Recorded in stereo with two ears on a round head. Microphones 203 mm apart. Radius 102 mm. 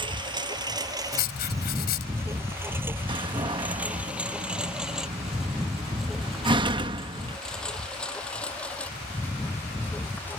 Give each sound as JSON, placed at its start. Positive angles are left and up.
{"t": 0.0, "sound": "a lawn mower", "side_deg": -20}
{"t": 1.1, "sound": "writing", "side_deg": 45}
{"t": 3.1, "sound": "a door slam", "side_deg": -20}